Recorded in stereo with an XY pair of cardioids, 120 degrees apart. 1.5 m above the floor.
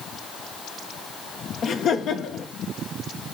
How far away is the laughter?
About 1.5 m.